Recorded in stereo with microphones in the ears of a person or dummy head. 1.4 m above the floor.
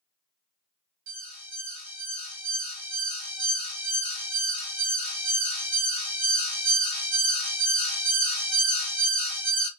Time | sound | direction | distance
1.1 | an alarm | 65° right (ahead or behind) | 2.0 m